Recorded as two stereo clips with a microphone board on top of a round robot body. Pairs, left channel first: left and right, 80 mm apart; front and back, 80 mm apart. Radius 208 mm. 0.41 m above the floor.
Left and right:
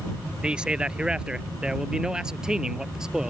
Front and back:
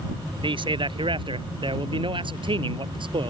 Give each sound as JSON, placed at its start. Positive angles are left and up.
{"t": 0.4, "sound": "a man speaking", "azimuth_deg": -170}